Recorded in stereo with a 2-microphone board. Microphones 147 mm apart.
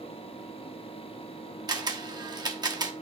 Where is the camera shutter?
30° right (ahead or behind), 1.0 m.